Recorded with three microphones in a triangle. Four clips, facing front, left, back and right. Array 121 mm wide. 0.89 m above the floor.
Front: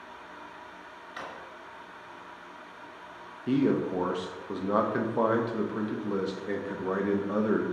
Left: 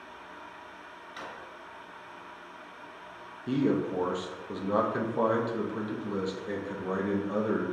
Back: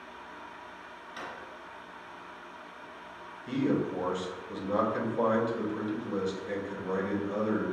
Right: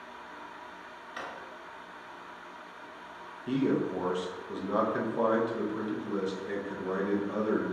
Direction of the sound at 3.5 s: 5° left.